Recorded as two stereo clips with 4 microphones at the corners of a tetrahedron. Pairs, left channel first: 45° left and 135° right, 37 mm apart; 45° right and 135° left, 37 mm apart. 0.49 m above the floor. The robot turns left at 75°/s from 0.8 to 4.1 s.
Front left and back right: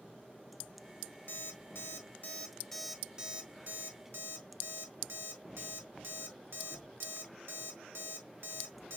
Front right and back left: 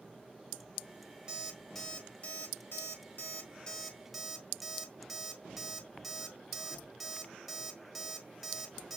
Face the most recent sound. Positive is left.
turn(degrees=-135)